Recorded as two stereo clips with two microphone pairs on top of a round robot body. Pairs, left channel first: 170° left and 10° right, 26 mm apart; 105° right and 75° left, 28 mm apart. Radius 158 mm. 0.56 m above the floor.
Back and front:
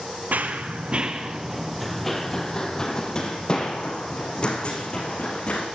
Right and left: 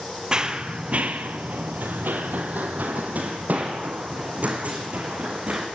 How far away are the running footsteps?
About 1.2 m.